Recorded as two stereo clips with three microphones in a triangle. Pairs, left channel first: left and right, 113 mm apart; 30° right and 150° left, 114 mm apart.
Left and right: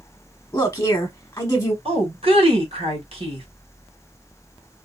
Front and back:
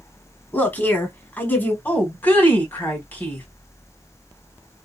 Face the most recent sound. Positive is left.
turn(degrees=-100)